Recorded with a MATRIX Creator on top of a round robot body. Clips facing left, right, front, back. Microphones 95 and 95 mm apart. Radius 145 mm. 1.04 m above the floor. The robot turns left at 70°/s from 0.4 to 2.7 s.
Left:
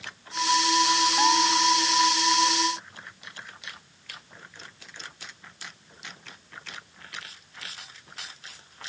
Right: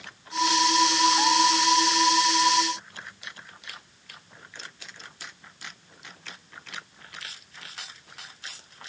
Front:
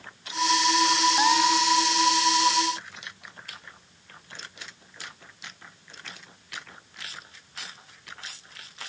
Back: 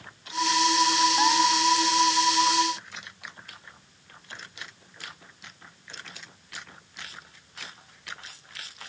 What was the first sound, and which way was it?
Only background noise.